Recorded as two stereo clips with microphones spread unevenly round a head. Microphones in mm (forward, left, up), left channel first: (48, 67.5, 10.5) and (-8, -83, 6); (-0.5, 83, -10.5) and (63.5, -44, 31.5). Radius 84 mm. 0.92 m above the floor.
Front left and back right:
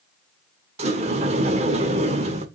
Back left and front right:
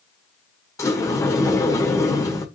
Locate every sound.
0.8 s a sliding door: 165° right, 1.2 m